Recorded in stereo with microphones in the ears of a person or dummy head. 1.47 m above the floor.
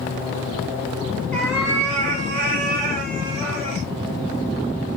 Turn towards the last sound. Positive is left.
turn(degrees=-50)  # may be behind; listen again after turning